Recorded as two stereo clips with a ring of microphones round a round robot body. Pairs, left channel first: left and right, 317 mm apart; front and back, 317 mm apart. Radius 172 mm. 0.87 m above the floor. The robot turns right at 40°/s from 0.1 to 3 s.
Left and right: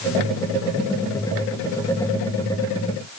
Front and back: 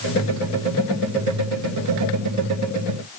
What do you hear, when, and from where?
Only background noise.